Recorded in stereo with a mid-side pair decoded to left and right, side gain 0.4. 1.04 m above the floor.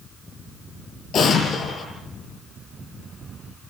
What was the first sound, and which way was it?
An explosion, 65° left.